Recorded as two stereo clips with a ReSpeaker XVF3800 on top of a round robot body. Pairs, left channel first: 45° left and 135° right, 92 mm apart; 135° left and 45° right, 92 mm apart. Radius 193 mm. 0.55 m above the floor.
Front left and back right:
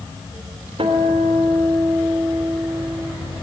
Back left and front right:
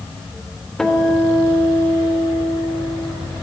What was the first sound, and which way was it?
A guitar, 140° right.